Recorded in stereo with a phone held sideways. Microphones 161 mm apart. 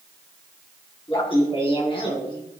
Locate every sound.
1.1 s laughter: 35° left (ahead or behind), 7.5 m